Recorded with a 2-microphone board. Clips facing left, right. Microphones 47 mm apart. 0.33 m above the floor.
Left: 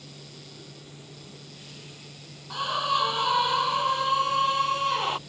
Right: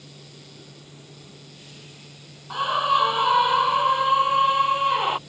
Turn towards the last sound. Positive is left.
turn(degrees=-20)  # may be behind; listen again after turning